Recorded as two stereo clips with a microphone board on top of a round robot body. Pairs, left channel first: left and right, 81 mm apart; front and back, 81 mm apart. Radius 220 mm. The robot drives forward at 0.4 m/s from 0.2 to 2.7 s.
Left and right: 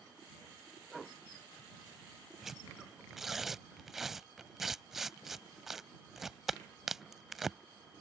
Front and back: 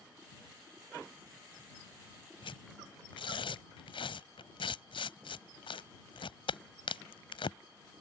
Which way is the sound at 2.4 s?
5° right.